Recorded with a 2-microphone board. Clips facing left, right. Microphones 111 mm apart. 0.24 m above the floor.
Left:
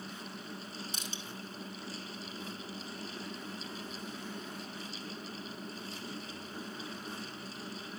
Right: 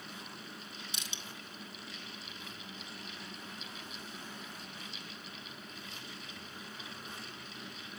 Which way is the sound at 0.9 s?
40° left (ahead or behind).